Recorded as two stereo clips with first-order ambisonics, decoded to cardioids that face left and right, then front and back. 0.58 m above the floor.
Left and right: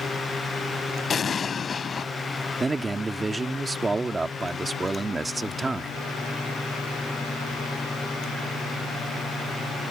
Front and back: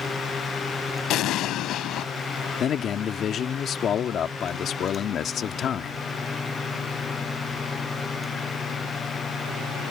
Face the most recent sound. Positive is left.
turn(degrees=-20)